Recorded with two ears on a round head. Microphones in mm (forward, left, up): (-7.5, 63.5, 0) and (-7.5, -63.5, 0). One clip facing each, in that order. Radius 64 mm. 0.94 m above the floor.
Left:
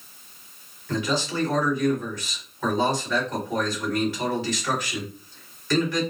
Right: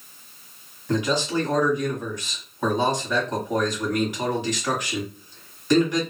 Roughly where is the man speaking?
Centre.